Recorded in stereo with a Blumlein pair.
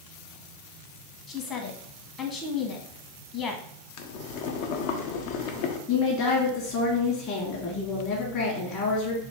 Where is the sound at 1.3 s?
25° left, 1.1 m.